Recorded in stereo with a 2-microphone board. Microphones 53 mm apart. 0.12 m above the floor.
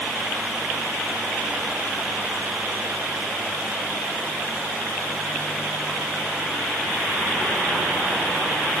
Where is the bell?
No bell in this recording.